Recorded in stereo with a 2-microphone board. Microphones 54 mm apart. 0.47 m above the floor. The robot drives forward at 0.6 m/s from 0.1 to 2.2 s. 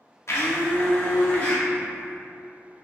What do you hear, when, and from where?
0.3 s a blender: 60° left (ahead or behind), 0.5 m; by 1.6 s 25° left (ahead or behind), 1.1 m